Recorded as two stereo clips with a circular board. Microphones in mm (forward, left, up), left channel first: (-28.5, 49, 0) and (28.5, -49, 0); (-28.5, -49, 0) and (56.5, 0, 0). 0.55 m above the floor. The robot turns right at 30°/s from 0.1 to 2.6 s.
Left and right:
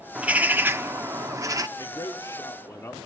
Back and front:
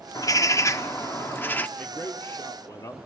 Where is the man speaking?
150° left, 1.2 m; by 3.1 s 175° left, 1.2 m.